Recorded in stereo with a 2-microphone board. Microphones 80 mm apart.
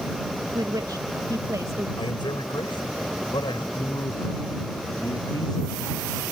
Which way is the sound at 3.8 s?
60° left (ahead or behind).